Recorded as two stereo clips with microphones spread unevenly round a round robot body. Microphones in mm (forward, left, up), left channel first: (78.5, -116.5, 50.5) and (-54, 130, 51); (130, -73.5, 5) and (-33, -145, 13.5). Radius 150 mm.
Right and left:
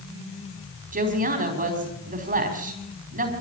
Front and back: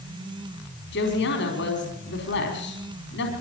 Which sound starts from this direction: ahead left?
A woman speaking, at 0.9 s.